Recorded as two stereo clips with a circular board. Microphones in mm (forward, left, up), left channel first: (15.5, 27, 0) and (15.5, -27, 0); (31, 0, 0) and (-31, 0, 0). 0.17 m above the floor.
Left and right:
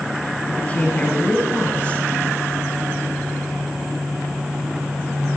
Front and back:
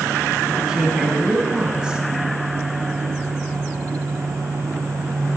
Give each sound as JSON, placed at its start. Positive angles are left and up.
{"t": 0.5, "sound": "a woman speaking", "azimuth_deg": 120, "distance_m": 1.7}